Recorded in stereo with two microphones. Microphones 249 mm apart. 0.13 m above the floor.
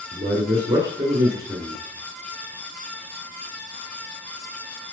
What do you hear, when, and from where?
0.1 s a man speaking: 15° right (ahead or behind), 1.5 m